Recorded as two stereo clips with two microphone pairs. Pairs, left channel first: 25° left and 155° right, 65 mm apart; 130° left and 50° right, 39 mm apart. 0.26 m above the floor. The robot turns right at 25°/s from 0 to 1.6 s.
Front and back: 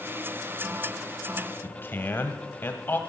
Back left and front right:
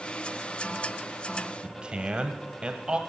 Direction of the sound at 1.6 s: 5° right.